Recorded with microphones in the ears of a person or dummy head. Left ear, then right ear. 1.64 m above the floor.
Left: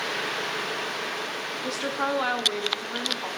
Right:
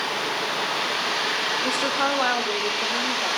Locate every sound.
1.6 s a woman speaking: 10° right (ahead or behind), 0.6 m